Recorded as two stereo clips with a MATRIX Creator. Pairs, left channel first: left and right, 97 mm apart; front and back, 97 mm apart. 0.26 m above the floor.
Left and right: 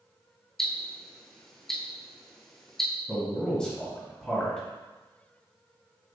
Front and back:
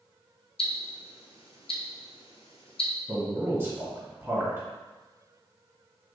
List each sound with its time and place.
0.6 s ticking: 5° left, 0.8 m
3.1 s a man speaking: 160° left, 1.7 m